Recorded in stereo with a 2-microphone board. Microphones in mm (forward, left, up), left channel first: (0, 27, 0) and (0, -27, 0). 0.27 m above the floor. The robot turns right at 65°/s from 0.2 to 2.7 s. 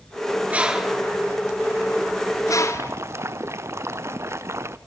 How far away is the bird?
About 1.6 m.